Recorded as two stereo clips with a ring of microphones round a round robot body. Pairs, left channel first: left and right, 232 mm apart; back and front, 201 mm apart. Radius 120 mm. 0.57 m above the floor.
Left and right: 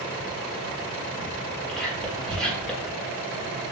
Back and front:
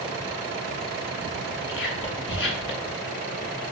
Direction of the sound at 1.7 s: 175° left.